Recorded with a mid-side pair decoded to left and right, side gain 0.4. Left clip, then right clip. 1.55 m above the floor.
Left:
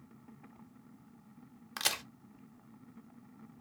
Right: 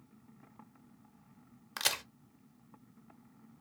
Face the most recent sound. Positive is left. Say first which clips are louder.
# right 1 dB
turn(degrees=-10)